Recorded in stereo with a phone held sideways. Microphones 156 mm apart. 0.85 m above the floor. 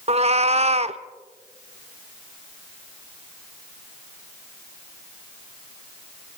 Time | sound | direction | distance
0.1 | a cat meowing | 45° right (ahead or behind) | 0.7 m